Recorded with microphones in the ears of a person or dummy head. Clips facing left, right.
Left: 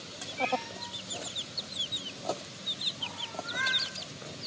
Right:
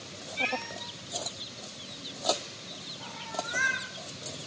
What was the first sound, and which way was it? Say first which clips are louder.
A cat meowing: left 3 dB; 25° right (ahead or behind).